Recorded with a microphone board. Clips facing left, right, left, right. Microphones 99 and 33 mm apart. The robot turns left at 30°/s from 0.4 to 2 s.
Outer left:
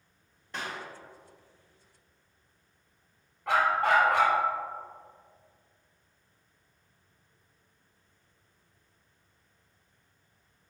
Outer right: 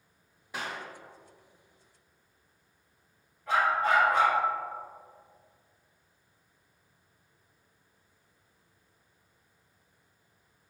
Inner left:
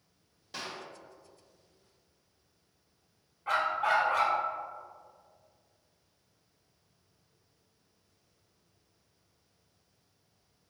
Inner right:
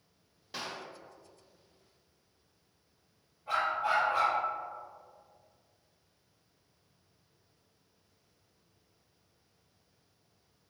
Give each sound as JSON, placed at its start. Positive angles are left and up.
{"t": 0.5, "sound": "a clap", "side_deg": -10, "distance_m": 1.0}
{"t": 3.5, "sound": "a dog barking", "side_deg": 90, "distance_m": 1.1}